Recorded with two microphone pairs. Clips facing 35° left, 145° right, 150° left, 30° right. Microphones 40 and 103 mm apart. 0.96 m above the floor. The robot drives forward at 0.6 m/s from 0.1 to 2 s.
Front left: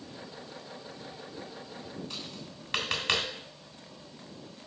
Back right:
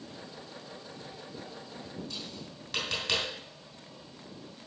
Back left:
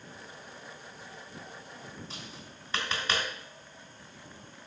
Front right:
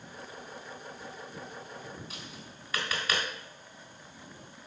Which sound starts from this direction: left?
Tapping, at 2.1 s.